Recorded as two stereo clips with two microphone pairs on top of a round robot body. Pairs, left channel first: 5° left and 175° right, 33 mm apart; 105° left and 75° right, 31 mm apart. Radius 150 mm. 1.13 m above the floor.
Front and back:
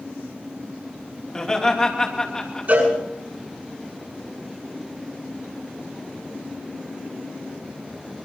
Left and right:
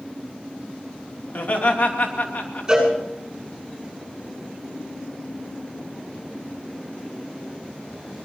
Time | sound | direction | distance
1.3 | laughter | 80° left | 3.5 m
2.7 | a cowbell | 140° right | 8 m